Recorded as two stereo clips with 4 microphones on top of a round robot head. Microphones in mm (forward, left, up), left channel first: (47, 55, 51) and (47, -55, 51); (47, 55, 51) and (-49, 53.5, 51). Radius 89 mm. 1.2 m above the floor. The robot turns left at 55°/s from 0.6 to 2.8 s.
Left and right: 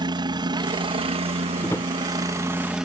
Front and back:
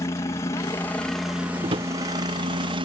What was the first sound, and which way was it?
A helicopter, 55° right.